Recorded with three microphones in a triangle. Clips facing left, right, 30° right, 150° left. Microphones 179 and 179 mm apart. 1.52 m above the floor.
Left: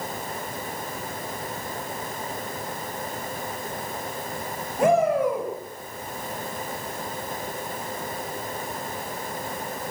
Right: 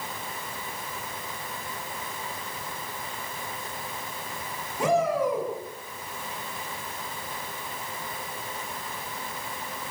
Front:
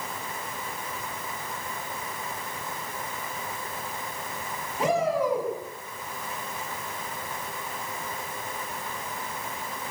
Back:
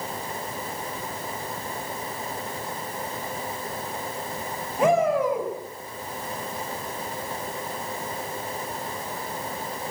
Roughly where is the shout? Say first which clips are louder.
Left 4 dB, back 4 dB; behind left.